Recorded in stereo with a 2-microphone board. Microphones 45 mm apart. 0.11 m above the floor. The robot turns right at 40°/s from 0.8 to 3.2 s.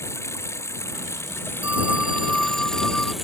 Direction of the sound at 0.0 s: 90° left.